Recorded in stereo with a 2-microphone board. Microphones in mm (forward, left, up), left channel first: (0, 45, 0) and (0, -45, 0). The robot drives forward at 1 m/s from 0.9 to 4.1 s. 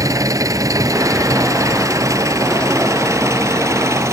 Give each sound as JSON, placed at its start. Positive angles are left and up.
{"t": 0.0, "sound": "an engine running", "side_deg": -40}